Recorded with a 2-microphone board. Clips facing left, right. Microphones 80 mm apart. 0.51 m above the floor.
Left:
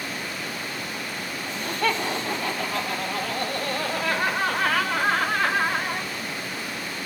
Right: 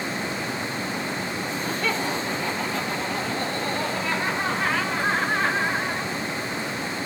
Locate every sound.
1.5 s laughter: 50° left (ahead or behind), 8 m; by 6.1 s 70° left (ahead or behind), 4.5 m